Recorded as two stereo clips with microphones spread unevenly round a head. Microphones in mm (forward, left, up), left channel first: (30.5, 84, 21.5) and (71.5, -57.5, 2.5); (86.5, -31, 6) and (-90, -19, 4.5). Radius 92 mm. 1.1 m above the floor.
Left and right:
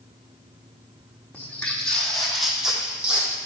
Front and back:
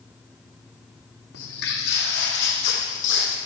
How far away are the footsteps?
About 3 m.